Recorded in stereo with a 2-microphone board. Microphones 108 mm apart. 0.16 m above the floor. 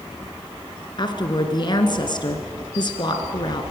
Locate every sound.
1.0 s a woman speaking: 45° left (ahead or behind), 1.8 m